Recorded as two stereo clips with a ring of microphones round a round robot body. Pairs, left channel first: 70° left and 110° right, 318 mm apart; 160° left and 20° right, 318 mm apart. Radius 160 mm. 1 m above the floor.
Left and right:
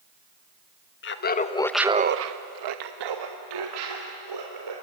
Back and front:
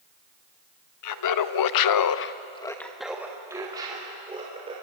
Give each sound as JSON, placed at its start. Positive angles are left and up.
{"t": 1.0, "sound": "laughter", "azimuth_deg": 120, "distance_m": 1.5}